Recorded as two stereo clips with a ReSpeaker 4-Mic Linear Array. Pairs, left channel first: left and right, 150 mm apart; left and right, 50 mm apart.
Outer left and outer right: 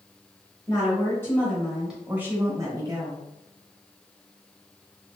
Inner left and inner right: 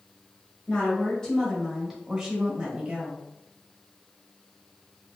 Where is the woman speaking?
30° left (ahead or behind), 1.2 m; by 3.2 s 40° right (ahead or behind), 1.3 m.